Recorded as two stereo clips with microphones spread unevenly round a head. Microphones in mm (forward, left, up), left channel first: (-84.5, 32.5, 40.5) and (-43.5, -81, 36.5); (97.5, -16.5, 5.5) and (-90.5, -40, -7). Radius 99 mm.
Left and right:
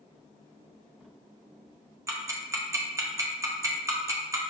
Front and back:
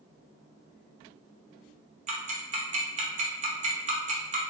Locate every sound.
2.1 s ticking: 130° right, 0.8 m